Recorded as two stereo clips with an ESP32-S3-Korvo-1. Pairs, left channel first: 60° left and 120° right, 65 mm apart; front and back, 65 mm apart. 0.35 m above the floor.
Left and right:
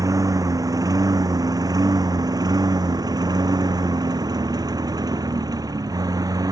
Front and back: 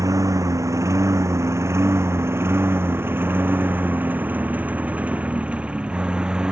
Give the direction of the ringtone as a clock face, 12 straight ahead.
No ringtone in this recording.